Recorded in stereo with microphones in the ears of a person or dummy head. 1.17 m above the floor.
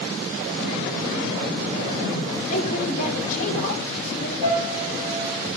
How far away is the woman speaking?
About 2.5 m.